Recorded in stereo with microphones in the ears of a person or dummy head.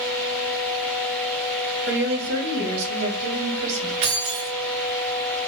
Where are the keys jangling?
60° right (ahead or behind), 1.6 m.